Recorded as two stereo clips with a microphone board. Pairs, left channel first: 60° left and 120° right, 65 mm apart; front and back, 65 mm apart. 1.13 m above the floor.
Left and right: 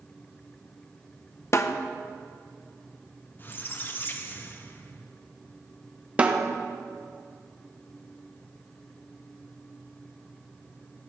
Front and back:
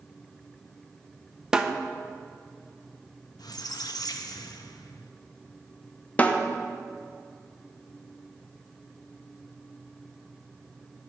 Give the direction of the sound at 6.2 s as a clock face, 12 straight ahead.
2 o'clock.